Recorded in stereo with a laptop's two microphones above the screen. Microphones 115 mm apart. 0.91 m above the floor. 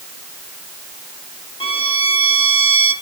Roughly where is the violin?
Left.